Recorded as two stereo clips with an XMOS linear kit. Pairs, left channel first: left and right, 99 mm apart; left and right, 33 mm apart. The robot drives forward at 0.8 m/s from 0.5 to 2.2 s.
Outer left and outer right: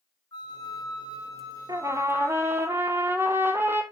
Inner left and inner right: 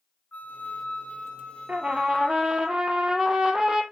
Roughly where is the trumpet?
Right.